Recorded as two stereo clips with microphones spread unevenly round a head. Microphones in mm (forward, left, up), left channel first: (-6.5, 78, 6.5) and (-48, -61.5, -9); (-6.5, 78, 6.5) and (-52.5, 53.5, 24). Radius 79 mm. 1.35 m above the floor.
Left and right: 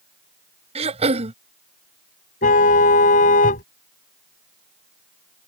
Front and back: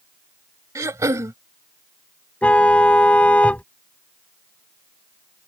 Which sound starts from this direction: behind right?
Throat clearing, at 0.8 s.